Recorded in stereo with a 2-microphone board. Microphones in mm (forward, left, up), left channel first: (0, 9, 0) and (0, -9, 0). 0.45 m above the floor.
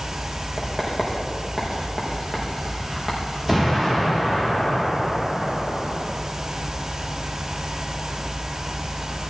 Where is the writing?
15° left (ahead or behind), 6 m.